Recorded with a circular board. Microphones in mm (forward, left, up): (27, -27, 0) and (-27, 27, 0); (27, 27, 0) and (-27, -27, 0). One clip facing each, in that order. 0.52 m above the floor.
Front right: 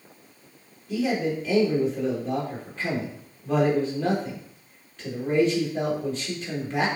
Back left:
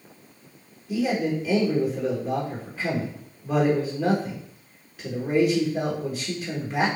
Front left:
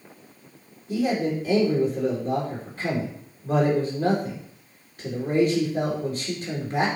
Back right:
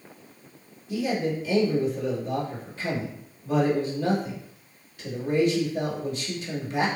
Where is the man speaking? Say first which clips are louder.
Back left 1 dB, front left 3 dB; 55° left, 1.7 m.